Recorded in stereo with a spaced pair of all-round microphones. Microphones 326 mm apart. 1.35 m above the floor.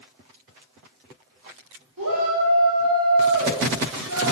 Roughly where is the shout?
Right.